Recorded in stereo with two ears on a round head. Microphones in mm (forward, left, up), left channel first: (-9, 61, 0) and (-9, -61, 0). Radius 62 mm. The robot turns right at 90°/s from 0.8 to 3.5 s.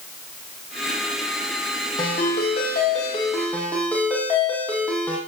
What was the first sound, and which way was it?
A ringtone, 30° left.